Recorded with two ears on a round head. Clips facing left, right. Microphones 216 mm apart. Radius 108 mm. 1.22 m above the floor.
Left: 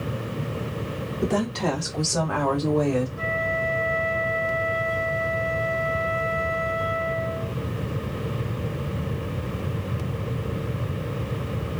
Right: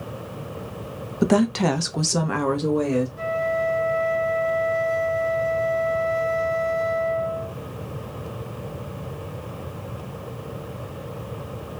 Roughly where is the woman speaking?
Right.